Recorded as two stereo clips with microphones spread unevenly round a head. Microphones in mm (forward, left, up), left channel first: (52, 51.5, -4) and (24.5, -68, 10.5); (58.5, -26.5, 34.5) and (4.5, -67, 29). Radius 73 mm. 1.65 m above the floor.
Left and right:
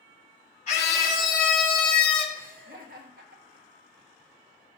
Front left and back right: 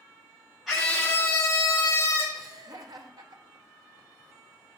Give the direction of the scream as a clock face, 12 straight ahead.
8 o'clock.